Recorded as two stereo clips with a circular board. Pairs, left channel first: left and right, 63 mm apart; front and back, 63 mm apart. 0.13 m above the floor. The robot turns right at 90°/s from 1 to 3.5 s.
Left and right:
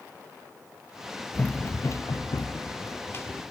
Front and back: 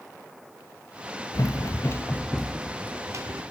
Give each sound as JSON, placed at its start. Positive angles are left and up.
{"t": 1.3, "sound": "running footsteps", "azimuth_deg": 20, "distance_m": 1.0}